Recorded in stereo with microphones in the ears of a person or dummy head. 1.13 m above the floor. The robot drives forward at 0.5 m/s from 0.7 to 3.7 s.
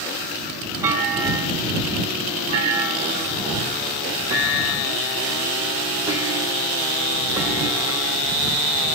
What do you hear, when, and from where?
0.8 s a clunk: 20° right (ahead or behind), 1.3 m